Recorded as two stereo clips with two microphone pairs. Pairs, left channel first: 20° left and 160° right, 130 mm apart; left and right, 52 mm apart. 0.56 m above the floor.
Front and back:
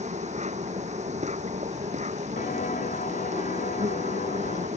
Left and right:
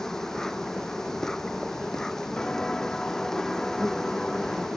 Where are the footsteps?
15° left; by 4.7 s 5° left.